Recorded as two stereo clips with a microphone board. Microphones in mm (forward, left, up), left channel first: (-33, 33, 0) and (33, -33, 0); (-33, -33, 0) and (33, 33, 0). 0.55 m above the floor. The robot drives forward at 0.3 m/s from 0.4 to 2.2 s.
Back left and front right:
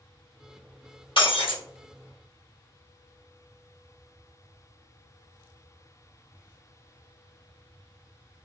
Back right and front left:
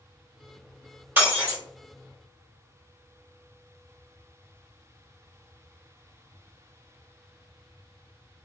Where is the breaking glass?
115° left, 1.1 m; by 1.6 s 120° left, 1.1 m.